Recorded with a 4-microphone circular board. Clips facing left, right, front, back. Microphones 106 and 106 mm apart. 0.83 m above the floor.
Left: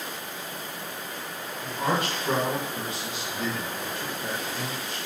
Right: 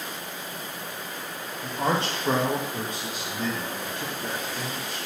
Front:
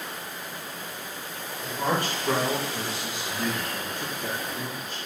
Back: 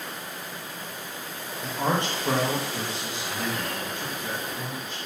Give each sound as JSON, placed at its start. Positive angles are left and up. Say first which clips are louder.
{"t": 1.6, "sound": "a man speaking", "louder": "right 1 dB, back 1 dB", "azimuth_deg": -150, "distance_m": 0.8}